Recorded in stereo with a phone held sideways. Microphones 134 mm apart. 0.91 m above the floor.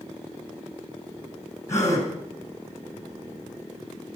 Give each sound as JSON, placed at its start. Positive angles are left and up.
{"t": 1.7, "sound": "a gasp", "side_deg": 20, "distance_m": 4.5}